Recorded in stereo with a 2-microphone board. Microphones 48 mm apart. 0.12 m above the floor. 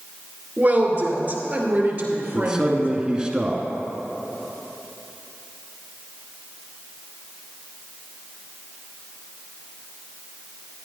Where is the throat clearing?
No throat clearing in this recording.